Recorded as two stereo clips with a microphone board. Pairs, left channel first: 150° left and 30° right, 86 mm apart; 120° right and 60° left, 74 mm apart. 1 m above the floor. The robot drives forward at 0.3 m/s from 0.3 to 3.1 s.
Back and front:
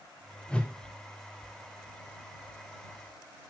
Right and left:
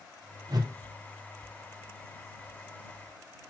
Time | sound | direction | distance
0.5 | a whoosh | 75° left | 0.9 m